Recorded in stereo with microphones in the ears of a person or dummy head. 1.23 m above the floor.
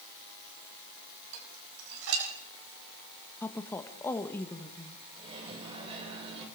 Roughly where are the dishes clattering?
Right.